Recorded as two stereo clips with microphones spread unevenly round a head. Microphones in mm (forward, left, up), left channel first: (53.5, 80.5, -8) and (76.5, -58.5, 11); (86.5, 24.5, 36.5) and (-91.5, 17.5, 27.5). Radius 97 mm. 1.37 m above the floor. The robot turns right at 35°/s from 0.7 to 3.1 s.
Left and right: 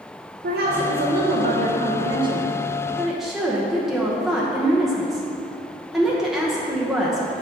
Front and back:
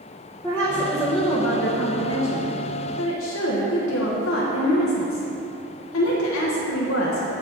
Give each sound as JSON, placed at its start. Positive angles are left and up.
{"t": 0.4, "sound": "a woman speaking", "azimuth_deg": -80, "distance_m": 0.9}